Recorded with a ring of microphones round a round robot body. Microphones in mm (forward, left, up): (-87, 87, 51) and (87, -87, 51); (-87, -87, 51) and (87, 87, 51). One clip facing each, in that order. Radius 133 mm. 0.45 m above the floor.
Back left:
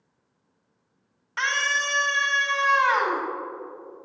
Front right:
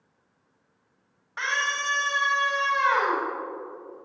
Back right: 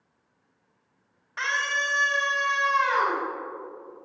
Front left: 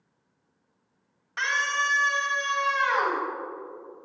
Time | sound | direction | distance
1.4 | a scream | 85° left | 2.5 m